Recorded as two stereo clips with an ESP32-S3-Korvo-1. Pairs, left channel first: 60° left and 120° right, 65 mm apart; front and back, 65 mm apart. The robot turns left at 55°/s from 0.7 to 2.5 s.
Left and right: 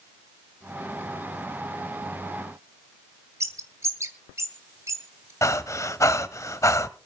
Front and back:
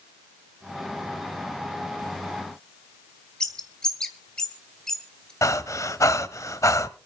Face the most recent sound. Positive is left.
turn(degrees=30)